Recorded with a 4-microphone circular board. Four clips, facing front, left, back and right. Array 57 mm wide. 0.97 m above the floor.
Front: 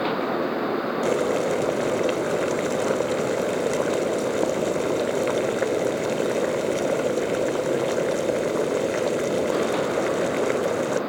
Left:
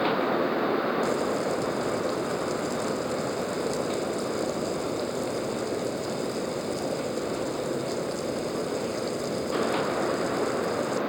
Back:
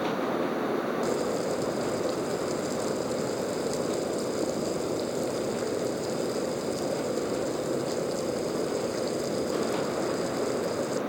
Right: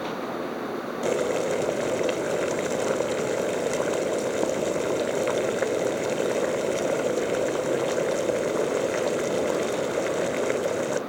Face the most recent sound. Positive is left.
turn(degrees=-40)